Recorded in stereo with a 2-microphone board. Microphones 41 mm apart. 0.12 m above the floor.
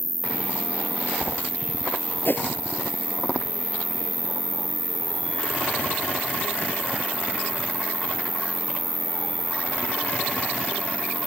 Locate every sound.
0.0 s an insect: centre (ahead or behind)
2.2 s a whoosh: 55° left (ahead or behind)